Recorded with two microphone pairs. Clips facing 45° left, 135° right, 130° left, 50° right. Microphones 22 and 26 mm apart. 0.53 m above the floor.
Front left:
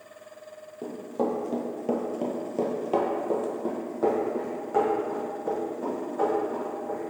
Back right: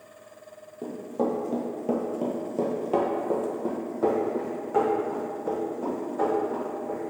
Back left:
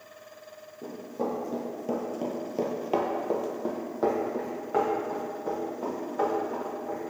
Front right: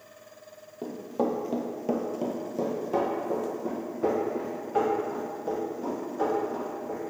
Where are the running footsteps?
30° right, 0.9 m; by 7.0 s 135° left, 2.5 m.